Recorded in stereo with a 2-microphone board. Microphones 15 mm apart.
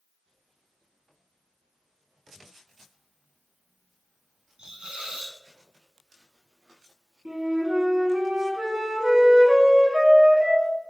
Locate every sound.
4.6 s a hiss: 65° right (ahead or behind), 0.9 m
7.2 s a flute: 65° right (ahead or behind), 1.0 m